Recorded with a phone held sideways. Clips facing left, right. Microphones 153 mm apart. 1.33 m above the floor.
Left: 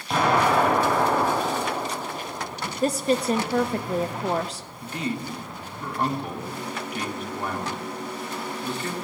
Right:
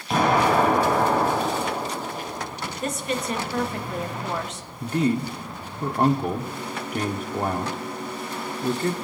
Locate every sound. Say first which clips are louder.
0.1 s an explosion: right 1 dB; centre (ahead or behind), 5 m
2.8 s a woman speaking: left 6 dB; 35° left (ahead or behind), 0.6 m
4.8 s a man speaking: right 7 dB; 45° right (ahead or behind), 1.1 m